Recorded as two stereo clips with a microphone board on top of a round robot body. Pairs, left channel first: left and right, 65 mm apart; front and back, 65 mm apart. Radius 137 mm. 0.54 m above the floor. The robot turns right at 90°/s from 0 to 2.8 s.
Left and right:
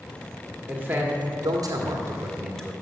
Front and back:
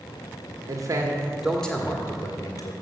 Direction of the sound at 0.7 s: 170° right.